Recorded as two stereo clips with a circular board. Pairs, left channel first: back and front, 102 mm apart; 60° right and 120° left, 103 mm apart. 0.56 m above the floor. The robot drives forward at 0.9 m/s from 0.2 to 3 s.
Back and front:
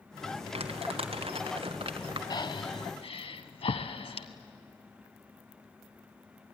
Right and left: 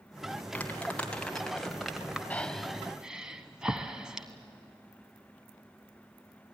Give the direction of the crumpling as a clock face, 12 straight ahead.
11 o'clock.